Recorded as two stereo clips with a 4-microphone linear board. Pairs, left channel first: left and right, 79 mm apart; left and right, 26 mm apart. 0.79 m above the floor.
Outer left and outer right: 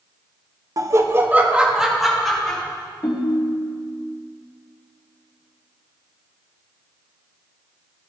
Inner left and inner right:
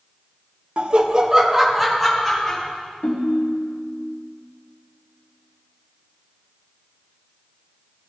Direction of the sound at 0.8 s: 45° right (ahead or behind).